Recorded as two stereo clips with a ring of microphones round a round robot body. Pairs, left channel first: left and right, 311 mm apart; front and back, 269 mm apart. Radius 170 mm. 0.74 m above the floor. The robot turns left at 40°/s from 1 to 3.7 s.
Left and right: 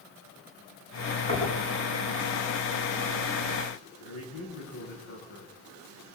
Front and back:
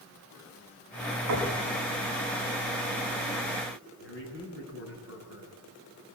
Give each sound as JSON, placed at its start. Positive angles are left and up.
{"t": 1.3, "sound": "knocking", "azimuth_deg": 165, "distance_m": 6.5}
{"t": 4.0, "sound": "a man speaking", "azimuth_deg": 45, "distance_m": 8.0}